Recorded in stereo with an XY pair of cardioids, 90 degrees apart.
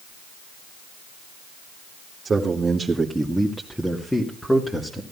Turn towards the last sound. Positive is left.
turn(degrees=25)